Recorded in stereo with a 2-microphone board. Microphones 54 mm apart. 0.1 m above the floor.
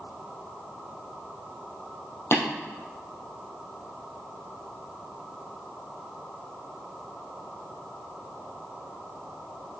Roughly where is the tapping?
Left.